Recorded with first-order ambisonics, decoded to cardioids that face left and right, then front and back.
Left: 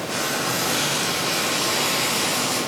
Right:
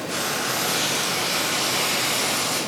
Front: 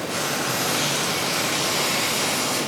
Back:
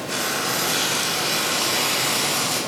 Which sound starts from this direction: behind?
Frying, at 0.1 s.